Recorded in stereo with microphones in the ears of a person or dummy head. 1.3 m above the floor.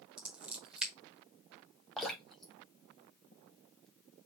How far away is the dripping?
About 1.0 m.